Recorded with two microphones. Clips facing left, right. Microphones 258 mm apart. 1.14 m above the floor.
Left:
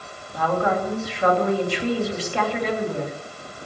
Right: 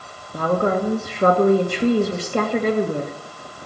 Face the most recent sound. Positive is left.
turn(degrees=-50)  # may be behind; listen again after turning